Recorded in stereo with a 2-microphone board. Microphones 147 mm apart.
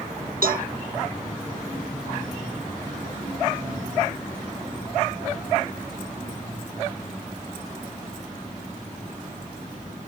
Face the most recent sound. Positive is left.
turn(degrees=-75)  # may be behind; listen again after turning